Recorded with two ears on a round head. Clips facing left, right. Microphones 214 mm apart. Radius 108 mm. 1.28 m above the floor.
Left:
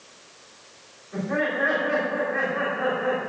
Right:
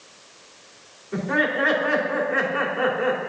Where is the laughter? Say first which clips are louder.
Right 2 dB; 70° right (ahead or behind), 3.5 m.